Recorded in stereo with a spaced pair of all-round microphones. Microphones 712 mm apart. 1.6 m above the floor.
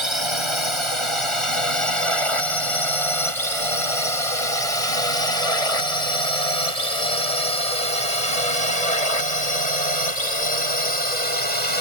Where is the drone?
40° left (ahead or behind); by 11.8 s 65° left (ahead or behind).